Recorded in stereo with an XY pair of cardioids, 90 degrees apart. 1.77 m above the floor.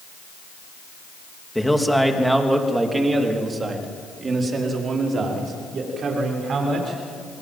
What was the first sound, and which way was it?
A man speaking, 5° left.